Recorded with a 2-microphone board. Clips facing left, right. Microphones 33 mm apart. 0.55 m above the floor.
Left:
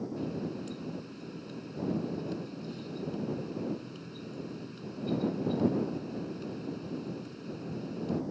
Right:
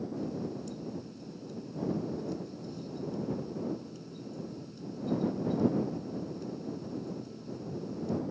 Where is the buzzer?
No buzzer in this recording.